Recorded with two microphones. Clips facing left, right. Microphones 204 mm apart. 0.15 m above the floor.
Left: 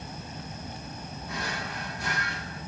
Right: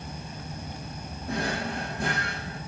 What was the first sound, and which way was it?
A drawer, 50° right (ahead or behind).